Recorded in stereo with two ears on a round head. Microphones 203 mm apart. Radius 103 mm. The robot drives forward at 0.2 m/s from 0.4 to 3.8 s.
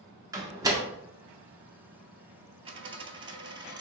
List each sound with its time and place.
0.3 s a door slam: 15° right (ahead or behind), 0.7 m
2.6 s a dropped coin: 25° right (ahead or behind), 0.6 m; by 3.8 s 20° right (ahead or behind), 0.7 m